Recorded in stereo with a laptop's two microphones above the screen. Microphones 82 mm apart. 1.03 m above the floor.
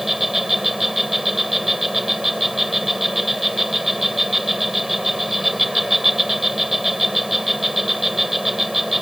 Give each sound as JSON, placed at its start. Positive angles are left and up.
{"t": 0.0, "sound": "an insect", "side_deg": 0}